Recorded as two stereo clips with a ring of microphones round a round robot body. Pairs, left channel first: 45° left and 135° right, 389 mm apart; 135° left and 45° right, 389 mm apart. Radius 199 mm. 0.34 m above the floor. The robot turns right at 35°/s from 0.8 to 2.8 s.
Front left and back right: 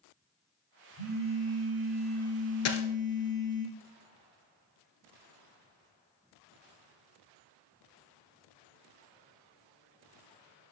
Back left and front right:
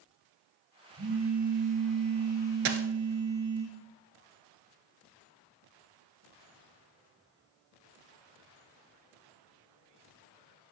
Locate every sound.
1.0 s a phone buzzing: 110° right, 3.5 m; by 3.6 s 45° right, 3.5 m
2.6 s a dropped coin: 10° right, 1.1 m; by 2.9 s 5° right, 1.1 m